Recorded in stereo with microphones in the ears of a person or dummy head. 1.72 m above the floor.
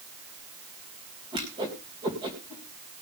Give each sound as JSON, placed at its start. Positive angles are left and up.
{"t": 1.3, "sound": "a whoosh", "side_deg": -25, "distance_m": 3.5}